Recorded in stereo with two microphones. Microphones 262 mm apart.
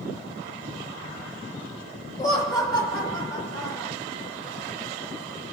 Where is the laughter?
20° left (ahead or behind), 1.9 m.